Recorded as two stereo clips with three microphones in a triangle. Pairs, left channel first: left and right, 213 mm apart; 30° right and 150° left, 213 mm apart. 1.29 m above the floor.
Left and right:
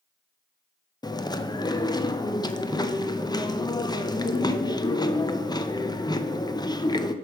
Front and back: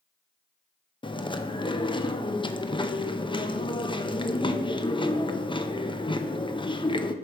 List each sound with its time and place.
1.0 s chewing: 25° left, 0.5 m